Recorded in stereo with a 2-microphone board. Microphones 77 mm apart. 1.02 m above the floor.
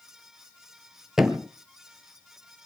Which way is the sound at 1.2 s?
5° right (ahead or behind).